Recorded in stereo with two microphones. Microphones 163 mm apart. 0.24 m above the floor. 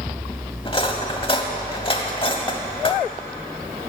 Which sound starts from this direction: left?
Cutlery clinking, at 0.7 s.